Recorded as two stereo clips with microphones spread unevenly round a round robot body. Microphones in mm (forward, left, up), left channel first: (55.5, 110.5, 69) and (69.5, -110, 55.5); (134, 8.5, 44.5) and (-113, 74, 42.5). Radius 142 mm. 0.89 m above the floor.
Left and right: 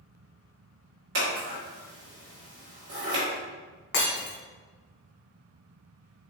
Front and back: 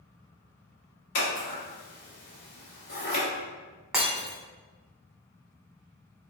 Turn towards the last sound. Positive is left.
turn(degrees=80)